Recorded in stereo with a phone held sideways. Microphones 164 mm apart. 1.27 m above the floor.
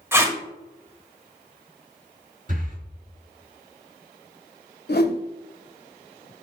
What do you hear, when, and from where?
0.1 s tape being pulled: 15° right (ahead or behind), 1.1 m
2.5 s breathing: 50° right (ahead or behind), 2.0 m
4.9 s a whoosh: 70° left (ahead or behind), 0.8 m